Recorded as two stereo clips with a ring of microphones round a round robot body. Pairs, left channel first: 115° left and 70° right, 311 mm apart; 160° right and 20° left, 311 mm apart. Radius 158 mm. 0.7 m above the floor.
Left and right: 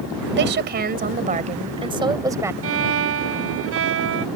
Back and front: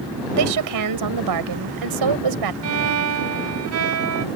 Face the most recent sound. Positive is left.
turn(degrees=-20)